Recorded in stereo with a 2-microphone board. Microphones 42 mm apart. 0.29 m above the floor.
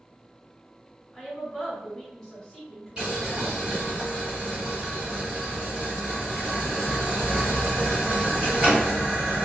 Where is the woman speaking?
10° left (ahead or behind), 1.3 m.